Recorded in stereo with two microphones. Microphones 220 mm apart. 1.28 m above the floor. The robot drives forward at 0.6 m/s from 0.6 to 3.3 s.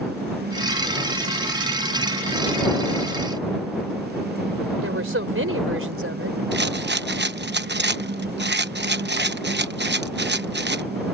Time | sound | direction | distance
4.8 | a woman speaking | 75° right (ahead or behind) | ?
6.5 | a rattle | 50° right (ahead or behind) | ?